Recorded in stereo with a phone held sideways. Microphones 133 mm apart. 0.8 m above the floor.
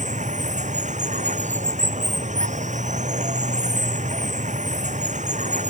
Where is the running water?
65° right (ahead or behind).